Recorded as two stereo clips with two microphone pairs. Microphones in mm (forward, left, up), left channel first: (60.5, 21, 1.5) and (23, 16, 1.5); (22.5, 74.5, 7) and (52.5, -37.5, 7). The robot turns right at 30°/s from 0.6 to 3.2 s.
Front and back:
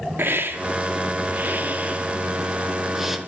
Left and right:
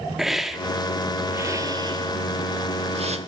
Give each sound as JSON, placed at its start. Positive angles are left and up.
{"t": 0.2, "sound": "a hiss", "azimuth_deg": -160, "distance_m": 1.4}